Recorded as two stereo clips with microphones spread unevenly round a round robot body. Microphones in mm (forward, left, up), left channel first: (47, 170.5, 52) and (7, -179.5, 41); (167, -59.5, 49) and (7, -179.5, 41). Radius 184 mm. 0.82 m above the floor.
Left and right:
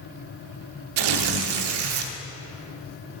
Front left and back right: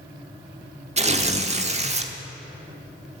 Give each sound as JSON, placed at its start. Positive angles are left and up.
{"t": 1.0, "sound": "tearing paper", "azimuth_deg": -85, "distance_m": 1.2}